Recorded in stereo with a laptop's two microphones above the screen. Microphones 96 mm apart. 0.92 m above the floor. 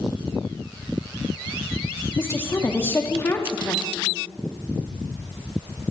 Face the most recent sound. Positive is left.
turn(degrees=25)  # may be behind; listen again after turning